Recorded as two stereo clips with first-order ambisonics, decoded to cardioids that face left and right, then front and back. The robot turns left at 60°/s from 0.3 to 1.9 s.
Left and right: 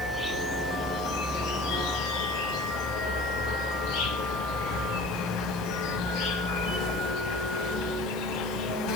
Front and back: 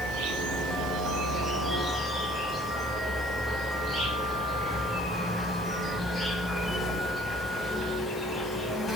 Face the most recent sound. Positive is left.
turn(degrees=75)